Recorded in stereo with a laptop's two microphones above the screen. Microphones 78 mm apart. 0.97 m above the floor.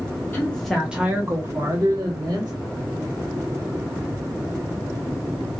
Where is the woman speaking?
20° left (ahead or behind), 0.6 m; by 2.5 s 60° right (ahead or behind), 1.2 m.